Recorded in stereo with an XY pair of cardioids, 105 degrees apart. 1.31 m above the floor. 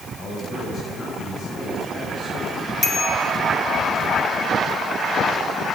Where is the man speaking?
50° left, 8 m.